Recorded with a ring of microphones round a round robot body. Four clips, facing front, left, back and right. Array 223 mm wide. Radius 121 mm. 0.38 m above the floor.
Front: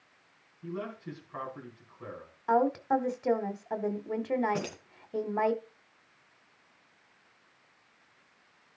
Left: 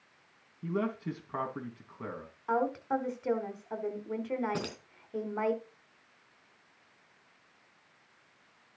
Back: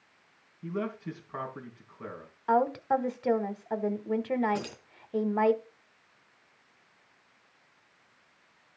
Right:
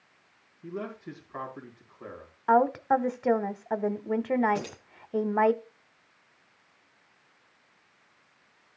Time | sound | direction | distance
0.6 | a man speaking | 110° left | 3.5 m
2.5 | a woman speaking | 100° right | 1.3 m
4.5 | keys jangling | 70° left | 3.5 m